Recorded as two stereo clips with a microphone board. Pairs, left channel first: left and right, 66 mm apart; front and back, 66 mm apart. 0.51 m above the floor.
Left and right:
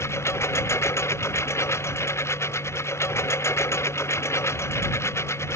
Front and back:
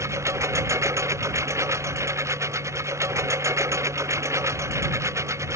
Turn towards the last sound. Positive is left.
turn(degrees=135)